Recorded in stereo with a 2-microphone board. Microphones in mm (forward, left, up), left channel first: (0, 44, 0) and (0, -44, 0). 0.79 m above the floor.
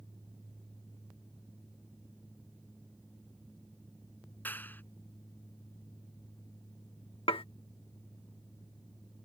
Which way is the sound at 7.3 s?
80° left.